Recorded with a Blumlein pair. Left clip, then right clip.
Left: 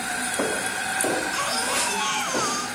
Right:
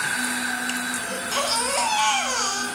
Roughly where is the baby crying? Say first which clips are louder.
Even; ahead right.